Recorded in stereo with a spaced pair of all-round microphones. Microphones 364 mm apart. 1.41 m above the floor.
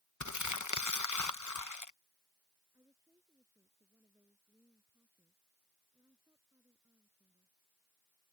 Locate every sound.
0.2 s crumpling: 50° left (ahead or behind)
2.7 s a woman speaking: 10° right (ahead or behind)